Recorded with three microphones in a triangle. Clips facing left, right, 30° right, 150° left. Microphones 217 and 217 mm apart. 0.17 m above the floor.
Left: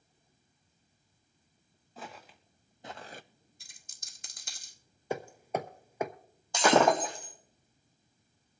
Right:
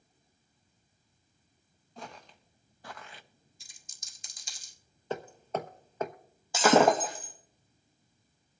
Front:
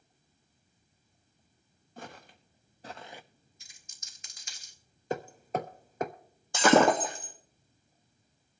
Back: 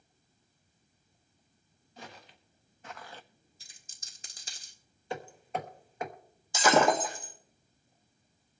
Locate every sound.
2.0 s footsteps: 5° left, 2.5 m; by 3.2 s 55° left, 0.5 m
3.6 s a dropped coin: 100° left, 1.3 m
5.1 s hammering: 10° left, 1.0 m
6.5 s breaking glass: 5° right, 3 m